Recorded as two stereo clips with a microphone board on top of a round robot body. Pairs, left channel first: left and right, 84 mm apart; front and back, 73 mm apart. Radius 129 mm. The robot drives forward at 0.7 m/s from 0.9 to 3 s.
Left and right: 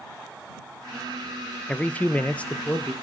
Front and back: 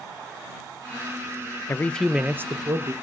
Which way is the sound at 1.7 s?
25° left.